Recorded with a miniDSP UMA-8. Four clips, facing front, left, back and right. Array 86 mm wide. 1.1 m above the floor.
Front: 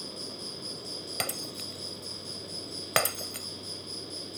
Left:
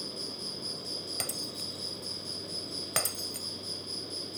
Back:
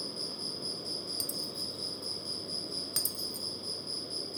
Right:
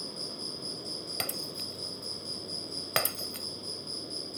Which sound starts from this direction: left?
An insect, at 0.0 s.